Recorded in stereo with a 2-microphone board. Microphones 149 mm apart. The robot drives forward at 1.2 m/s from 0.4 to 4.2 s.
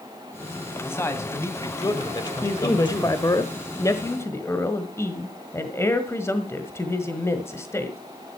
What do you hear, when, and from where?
0.8 s a man speaking: 20° left (ahead or behind), 2.5 m; by 3.2 s 30° left (ahead or behind), 1.6 m
2.4 s a man speaking: 20° left (ahead or behind), 1.5 m